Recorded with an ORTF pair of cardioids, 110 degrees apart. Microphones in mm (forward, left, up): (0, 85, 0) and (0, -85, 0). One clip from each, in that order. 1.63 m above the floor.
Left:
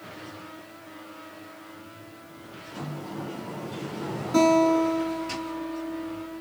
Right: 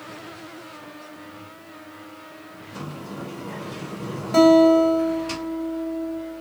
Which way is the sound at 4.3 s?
45° right.